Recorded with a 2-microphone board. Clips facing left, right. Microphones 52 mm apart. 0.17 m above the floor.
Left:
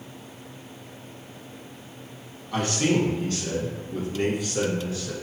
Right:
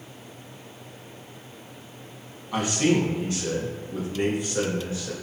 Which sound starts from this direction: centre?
A man speaking, at 2.5 s.